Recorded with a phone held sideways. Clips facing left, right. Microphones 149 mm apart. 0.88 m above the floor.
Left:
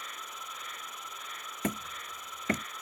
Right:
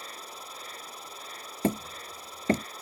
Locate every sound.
0.0 s an insect: 30° right (ahead or behind)
1.6 s hammering: 30° right (ahead or behind)